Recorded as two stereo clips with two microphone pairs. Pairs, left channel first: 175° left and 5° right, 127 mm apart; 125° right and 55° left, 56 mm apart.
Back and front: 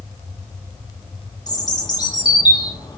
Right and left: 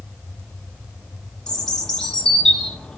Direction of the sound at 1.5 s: 170° left.